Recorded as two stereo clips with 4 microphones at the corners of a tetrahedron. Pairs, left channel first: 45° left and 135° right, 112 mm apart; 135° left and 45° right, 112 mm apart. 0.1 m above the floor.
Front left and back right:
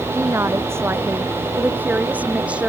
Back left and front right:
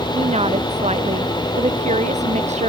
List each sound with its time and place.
0.1 s a woman speaking: 70° right; by 2.7 s 55° right